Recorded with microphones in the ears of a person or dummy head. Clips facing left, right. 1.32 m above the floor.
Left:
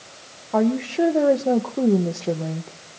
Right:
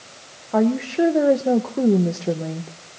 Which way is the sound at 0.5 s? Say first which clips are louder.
Right 1 dB; 10° right (ahead or behind).